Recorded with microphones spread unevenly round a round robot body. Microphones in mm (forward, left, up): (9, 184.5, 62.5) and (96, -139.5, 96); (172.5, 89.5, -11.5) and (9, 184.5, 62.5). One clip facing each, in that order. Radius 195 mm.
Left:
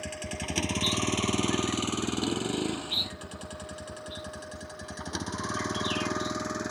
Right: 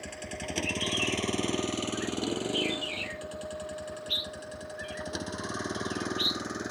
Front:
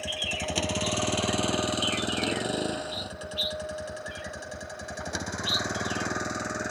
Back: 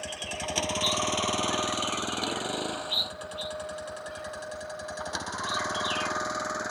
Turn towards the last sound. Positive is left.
turn(degrees=30)